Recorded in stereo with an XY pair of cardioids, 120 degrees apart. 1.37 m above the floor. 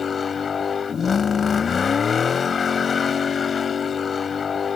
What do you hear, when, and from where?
0.0 s a vehicle: 30° left